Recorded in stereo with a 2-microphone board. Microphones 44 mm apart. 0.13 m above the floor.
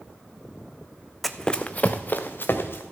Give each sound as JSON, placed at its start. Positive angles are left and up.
{"t": 1.2, "sound": "running footsteps", "side_deg": 0, "distance_m": 0.6}